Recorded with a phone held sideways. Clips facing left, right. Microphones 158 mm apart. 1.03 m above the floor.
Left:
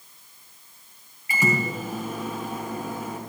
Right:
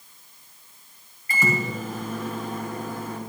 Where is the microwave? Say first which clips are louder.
Left 1 dB; 10° left (ahead or behind), 3 m.